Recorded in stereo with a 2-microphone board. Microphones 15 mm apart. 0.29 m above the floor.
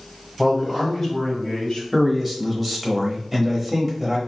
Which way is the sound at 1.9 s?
5° right (ahead or behind).